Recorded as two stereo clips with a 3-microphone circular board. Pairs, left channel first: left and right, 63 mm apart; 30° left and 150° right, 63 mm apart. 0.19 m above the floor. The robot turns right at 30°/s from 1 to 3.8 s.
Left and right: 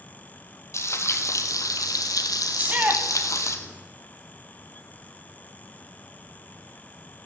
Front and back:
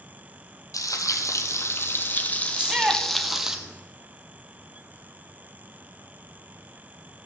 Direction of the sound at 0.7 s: 50° left.